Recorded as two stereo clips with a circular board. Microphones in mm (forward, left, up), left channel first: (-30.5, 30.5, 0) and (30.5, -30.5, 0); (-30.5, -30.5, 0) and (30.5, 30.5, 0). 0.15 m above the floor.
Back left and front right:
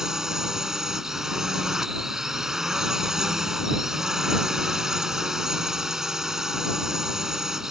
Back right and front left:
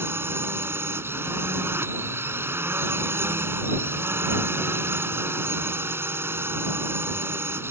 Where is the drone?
35° left.